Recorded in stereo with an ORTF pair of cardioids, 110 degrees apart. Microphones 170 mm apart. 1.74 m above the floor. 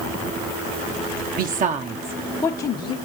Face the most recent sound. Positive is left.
turn(degrees=45)